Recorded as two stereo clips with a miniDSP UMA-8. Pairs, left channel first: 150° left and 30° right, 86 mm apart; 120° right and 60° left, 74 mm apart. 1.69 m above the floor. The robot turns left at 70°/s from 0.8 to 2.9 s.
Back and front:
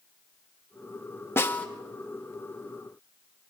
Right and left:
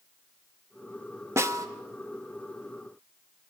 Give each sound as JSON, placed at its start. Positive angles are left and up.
{"t": 1.4, "sound": "a snare drum", "azimuth_deg": 100, "distance_m": 1.4}